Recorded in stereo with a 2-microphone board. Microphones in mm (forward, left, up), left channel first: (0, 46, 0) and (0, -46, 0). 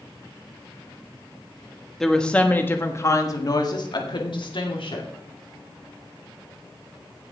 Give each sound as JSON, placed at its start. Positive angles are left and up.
{"t": 2.0, "sound": "a woman speaking", "side_deg": 5, "distance_m": 1.4}